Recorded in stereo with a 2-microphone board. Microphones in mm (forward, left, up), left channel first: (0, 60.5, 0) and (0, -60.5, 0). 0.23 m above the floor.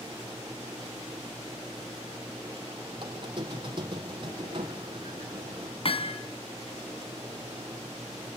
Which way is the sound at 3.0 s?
40° right (ahead or behind).